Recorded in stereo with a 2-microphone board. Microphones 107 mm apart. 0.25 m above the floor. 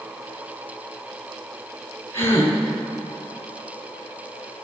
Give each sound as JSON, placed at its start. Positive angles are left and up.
{"t": 2.1, "sound": "a gasp", "side_deg": 25, "distance_m": 2.5}